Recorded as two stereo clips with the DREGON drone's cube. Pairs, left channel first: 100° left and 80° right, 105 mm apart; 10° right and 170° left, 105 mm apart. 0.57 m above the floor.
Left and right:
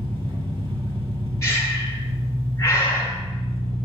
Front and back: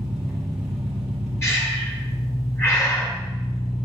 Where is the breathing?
45° left, 2 m.